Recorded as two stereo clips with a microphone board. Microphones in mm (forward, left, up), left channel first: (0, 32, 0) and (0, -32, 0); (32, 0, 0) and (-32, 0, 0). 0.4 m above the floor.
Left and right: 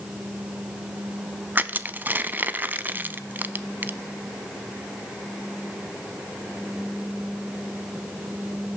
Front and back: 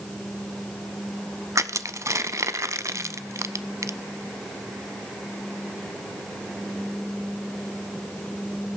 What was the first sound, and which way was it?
Crushing, 150° right.